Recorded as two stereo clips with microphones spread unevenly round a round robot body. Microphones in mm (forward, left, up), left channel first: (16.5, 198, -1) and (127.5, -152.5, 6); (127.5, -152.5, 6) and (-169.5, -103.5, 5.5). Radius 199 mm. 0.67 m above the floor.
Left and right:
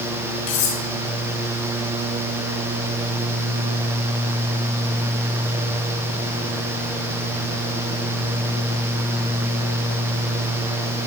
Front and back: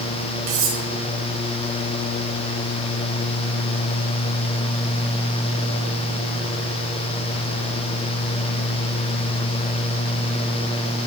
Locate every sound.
0.5 s cutlery clinking: 150° left, 4 m